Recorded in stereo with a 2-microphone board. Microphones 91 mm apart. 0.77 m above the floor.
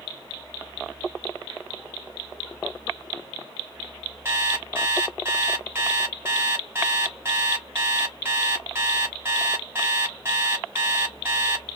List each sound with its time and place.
4.2 s an alarm clock: 25° right (ahead or behind), 0.9 m